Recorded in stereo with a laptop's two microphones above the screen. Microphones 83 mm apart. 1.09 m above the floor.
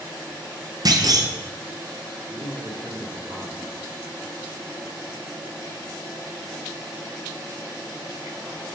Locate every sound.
0.8 s a clunk: 50° right (ahead or behind), 0.6 m
2.3 s a man speaking: 30° right (ahead or behind), 2.5 m